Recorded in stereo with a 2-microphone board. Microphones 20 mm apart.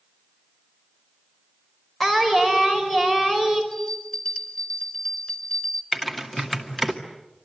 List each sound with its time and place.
2.0 s singing: 5° left (ahead or behind), 5 m
3.7 s a bell: 45° left (ahead or behind), 3.5 m
5.9 s typing on a keyboard: centre (ahead or behind), 2.5 m